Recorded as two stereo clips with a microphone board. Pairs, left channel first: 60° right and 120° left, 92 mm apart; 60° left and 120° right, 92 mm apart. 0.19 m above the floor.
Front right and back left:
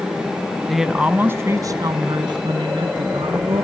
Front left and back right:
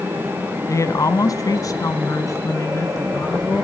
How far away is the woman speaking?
About 1.2 m.